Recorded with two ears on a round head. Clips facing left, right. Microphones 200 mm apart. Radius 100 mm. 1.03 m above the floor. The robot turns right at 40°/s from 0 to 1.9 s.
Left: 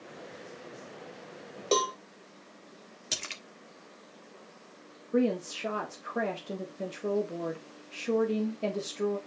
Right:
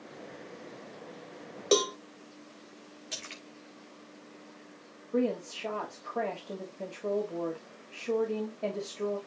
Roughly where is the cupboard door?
No cupboard door in this recording.